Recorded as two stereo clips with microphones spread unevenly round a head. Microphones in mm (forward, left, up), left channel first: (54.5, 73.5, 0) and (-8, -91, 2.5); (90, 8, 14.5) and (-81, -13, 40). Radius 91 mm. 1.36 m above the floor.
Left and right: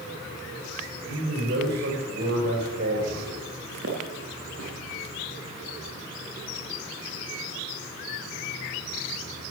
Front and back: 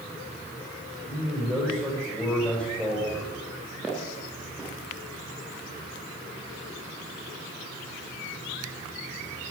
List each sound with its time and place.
1.1 s a man speaking: 80° right, 5 m
3.8 s footsteps: 90° right, 4.5 m